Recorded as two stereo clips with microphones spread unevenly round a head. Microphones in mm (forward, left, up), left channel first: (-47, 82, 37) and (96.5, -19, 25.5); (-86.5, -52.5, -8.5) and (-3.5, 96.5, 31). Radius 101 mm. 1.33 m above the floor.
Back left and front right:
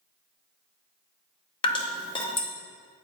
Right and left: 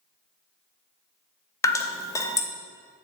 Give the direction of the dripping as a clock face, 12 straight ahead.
7 o'clock.